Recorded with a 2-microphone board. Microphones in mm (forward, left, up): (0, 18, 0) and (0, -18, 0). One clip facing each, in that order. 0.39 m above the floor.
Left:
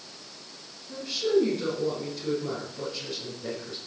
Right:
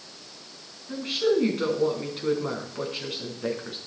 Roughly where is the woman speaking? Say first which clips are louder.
Right 1 dB; right.